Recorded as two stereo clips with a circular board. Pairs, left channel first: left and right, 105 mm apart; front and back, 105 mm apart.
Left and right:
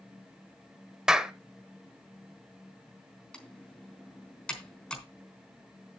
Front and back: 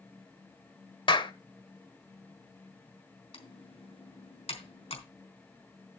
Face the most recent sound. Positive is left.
turn(degrees=5)